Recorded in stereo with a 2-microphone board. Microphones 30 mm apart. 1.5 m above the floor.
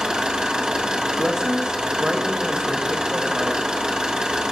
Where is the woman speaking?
25° right (ahead or behind), 1.0 m.